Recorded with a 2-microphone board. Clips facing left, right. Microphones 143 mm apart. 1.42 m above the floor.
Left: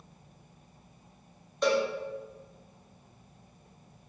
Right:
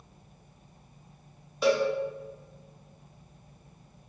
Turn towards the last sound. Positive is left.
turn(degrees=-5)  # may be behind; listen again after turning